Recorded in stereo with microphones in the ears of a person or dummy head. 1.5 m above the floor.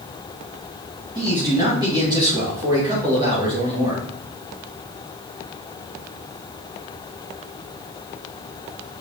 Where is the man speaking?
20° right (ahead or behind), 3 m.